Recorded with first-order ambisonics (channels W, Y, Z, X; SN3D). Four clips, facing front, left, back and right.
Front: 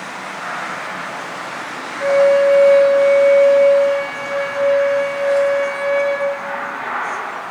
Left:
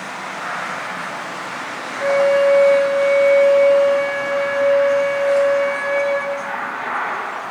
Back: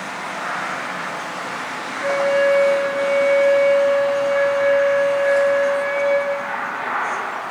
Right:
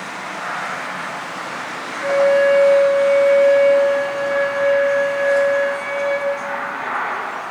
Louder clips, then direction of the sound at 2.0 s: Even, front 5 dB; 40° left.